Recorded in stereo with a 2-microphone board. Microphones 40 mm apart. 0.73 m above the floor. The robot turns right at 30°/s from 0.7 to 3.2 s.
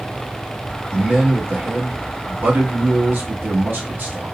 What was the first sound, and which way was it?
A man speaking, 155° right.